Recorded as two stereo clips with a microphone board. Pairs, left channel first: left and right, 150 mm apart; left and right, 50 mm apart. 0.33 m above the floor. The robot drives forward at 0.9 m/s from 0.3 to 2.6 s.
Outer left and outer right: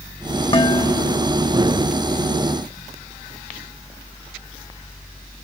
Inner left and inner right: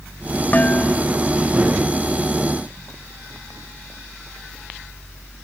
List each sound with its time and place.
0.5 s dishes clattering: 35° left (ahead or behind); by 1.4 s 30° left (ahead or behind)